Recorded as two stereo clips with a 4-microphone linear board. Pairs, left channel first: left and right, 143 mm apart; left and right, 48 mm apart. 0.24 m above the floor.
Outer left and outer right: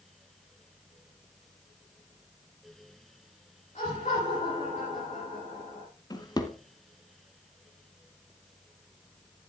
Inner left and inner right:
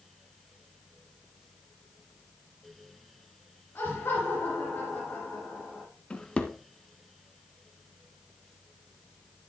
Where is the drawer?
30° left (ahead or behind), 1.2 m.